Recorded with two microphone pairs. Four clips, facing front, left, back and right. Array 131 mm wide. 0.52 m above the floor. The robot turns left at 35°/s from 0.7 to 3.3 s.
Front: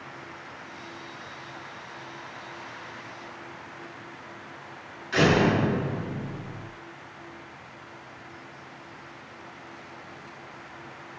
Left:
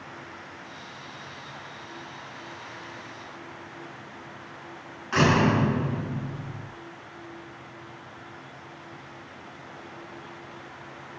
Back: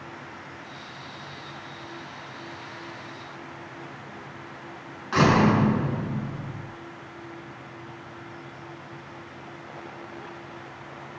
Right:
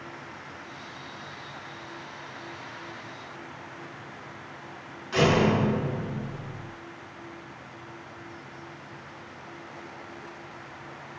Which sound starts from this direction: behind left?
A door slam, at 5.1 s.